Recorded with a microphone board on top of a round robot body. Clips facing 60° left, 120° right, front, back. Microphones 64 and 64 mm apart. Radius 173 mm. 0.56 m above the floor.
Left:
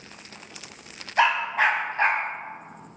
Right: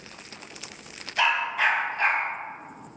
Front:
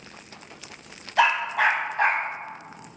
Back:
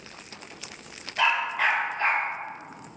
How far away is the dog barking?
About 1.1 m.